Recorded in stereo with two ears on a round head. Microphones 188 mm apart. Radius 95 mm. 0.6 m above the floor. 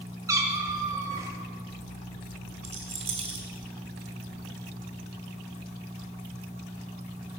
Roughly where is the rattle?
Right.